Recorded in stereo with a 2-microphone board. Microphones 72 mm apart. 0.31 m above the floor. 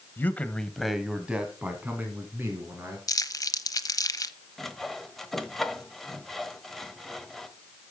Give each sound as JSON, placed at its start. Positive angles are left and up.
{"t": 0.2, "sound": "a man speaking", "side_deg": 30, "distance_m": 1.3}
{"t": 3.1, "sound": "crumpling", "side_deg": 55, "distance_m": 0.9}
{"t": 4.6, "sound": "sawing", "side_deg": 5, "distance_m": 1.1}